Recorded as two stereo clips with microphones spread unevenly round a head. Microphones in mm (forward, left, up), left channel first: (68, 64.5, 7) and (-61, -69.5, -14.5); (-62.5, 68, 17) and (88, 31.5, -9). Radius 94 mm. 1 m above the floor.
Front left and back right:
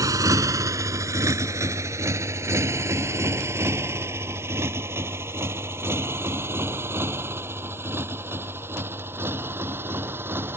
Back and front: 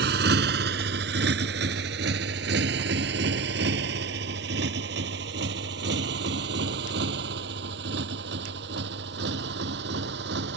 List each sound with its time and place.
0.0 s a motorcycle: 60° right; by 10.6 s 55° right